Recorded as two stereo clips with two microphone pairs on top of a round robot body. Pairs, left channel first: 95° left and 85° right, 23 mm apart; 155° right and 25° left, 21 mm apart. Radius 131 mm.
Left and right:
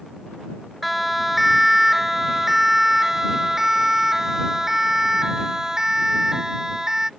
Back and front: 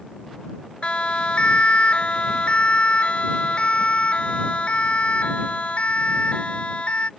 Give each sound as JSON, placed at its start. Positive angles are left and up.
{"t": 0.8, "sound": "a siren", "azimuth_deg": -175}